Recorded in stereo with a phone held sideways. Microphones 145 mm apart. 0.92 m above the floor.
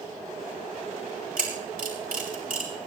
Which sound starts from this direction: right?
A camera shutter, at 1.4 s.